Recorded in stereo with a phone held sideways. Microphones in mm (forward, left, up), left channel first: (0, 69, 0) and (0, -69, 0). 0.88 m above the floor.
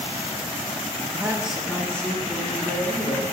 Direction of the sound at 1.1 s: 20° right (ahead or behind).